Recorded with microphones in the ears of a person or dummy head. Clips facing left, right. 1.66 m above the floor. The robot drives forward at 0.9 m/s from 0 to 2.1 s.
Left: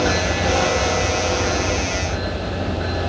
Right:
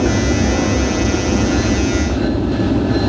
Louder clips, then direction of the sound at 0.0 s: Right 5 dB; 75° right (ahead or behind).